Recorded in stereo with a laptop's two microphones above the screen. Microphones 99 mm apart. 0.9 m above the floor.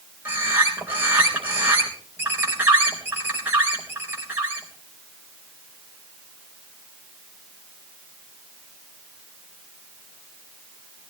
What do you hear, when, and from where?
0.2 s a bird: 20° right (ahead or behind), 3.5 m